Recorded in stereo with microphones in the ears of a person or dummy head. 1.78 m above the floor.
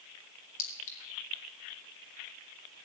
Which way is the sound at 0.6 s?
40° left (ahead or behind).